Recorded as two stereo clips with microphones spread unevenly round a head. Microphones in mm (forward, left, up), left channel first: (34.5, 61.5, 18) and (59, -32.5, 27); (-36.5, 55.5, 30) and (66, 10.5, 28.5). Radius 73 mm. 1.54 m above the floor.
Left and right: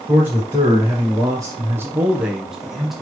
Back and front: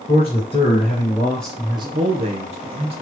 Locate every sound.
0.1 s a man speaking: 150° right, 1.6 m; by 3.0 s 10° left, 1.3 m